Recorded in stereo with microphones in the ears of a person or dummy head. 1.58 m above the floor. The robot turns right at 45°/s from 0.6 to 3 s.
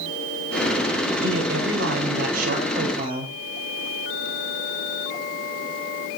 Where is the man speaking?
140° right, 5.5 m; by 3.3 s 60° right, 5.5 m.